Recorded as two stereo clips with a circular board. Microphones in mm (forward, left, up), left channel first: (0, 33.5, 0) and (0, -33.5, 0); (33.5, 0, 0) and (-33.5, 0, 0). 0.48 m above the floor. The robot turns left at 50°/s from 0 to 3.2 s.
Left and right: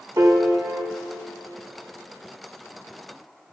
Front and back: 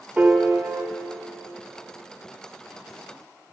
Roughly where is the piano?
Right.